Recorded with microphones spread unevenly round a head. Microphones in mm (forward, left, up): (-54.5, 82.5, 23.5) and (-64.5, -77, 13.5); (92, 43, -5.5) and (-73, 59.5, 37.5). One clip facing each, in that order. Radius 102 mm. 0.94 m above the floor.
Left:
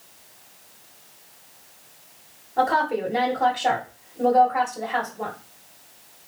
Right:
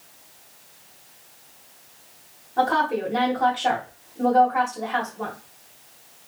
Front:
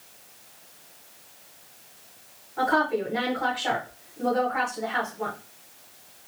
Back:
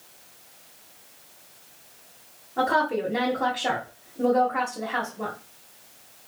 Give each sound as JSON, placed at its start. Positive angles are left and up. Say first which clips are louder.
{"t": 2.6, "sound": "a woman speaking", "louder": "even, even", "azimuth_deg": 165, "distance_m": 1.4}